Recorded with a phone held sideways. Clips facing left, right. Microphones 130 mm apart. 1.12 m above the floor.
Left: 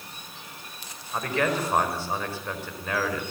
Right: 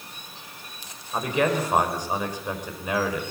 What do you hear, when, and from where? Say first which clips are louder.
1.1 s a man speaking: right 3 dB; 15° right (ahead or behind), 5 m